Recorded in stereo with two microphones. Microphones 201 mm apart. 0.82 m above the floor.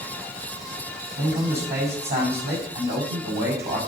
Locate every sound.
1.2 s a man speaking: 65° right (ahead or behind), 5 m